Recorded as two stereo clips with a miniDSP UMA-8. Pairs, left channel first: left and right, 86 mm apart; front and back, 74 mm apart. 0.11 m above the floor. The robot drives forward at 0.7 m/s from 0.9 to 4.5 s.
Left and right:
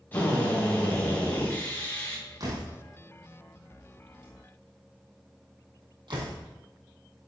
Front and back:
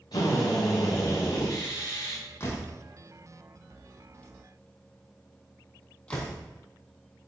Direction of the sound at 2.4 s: 50° right.